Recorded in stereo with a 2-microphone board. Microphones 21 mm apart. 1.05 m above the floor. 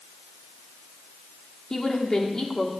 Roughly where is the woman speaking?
Left.